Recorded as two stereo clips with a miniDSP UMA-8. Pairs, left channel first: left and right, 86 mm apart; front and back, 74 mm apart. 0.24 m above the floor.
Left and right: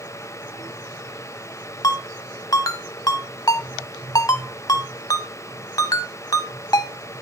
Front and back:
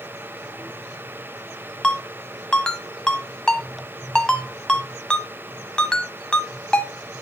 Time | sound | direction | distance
1.8 | a ringtone | 75° left | 0.7 m